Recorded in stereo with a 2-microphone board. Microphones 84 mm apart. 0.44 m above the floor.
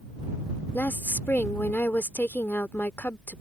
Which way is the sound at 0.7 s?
20° left (ahead or behind).